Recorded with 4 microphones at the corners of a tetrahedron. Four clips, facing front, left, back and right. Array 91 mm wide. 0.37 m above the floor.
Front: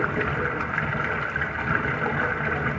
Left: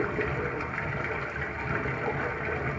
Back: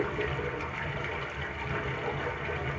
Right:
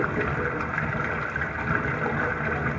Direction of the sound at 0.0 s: 35° right.